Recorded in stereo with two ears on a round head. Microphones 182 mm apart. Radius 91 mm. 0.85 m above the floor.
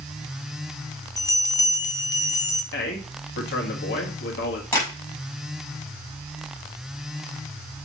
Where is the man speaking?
55° left (ahead or behind), 1.4 m.